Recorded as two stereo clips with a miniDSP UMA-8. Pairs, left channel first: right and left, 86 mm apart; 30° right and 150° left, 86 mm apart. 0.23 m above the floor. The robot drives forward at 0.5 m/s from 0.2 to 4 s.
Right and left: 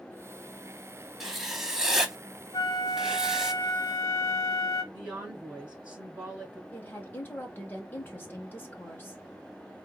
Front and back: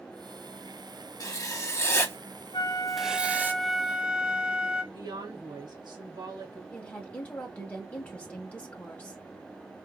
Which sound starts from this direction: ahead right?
A flute, at 2.5 s.